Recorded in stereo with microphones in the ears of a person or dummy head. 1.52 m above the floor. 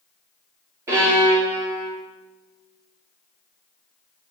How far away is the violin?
About 3.5 m.